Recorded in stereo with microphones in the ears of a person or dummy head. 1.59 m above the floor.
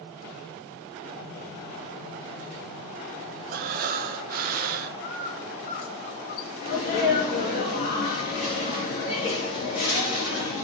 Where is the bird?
50° left (ahead or behind), 1.3 m.